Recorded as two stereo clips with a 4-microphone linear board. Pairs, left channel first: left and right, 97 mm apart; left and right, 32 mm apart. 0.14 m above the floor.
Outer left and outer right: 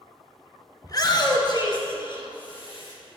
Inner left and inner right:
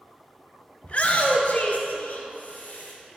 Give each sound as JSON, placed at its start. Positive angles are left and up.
{"t": 0.8, "sound": "a shout", "side_deg": 40, "distance_m": 1.4}